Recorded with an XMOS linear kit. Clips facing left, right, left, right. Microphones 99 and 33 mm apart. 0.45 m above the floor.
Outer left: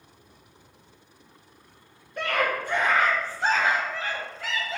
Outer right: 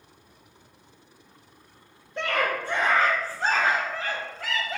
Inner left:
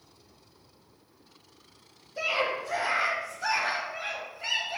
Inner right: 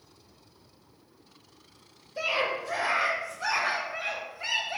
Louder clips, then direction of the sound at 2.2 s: Even, even; 25° right (ahead or behind).